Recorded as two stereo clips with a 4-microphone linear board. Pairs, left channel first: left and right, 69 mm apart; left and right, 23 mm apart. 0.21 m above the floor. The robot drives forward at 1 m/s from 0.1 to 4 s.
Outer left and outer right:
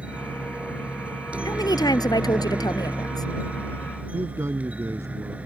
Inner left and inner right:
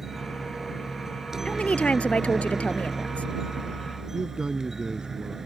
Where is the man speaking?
45° right (ahead or behind).